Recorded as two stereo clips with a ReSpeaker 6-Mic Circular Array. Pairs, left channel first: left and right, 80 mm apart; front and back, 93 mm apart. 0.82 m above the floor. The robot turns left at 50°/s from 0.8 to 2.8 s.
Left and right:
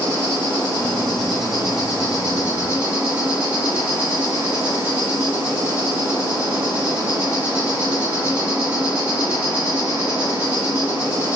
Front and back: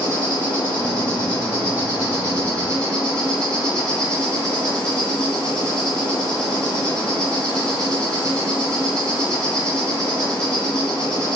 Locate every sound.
0.0 s an insect: 40° left, 1.5 m; by 11.4 s 60° right, 1.5 m